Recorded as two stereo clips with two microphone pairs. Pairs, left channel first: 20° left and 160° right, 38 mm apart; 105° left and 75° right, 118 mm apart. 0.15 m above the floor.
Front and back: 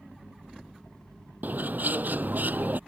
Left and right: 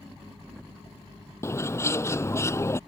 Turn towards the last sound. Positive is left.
turn(degrees=170)